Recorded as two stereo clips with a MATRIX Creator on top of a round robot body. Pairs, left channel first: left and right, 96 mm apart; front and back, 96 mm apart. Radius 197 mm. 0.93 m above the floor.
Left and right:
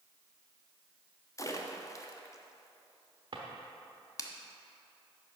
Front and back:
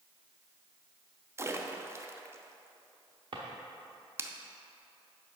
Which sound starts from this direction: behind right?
A drawer, at 3.3 s.